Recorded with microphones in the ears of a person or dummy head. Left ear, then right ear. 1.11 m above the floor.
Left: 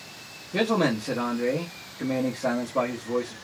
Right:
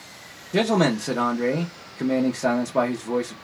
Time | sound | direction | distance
0.5 | a man speaking | 45° right (ahead or behind) | 0.7 m